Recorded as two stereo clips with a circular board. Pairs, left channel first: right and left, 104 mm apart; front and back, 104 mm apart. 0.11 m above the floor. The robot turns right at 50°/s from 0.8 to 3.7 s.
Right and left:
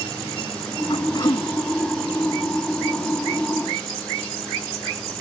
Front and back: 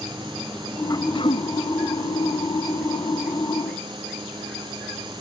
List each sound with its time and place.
0.9 s throat clearing: 55° right; by 1.5 s 25° right